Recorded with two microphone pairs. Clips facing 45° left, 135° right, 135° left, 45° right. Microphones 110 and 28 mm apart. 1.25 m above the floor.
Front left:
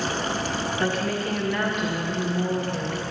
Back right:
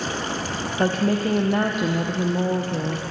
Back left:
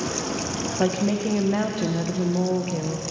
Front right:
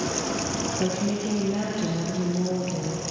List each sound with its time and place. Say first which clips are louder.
0.8 s a woman speaking: back right 7 dB, back left 6 dB; 175° left, 0.6 m